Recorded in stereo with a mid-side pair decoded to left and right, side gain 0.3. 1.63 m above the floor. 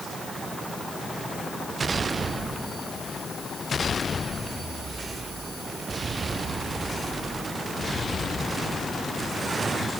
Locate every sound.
Only background noise.